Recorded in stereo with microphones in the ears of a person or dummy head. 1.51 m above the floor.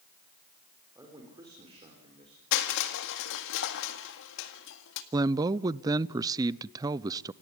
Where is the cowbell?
I don't hear a cowbell.